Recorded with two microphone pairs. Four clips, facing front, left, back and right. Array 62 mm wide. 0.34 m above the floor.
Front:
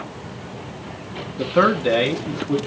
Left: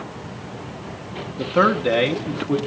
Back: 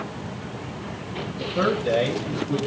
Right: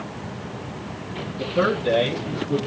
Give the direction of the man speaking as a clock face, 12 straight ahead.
11 o'clock.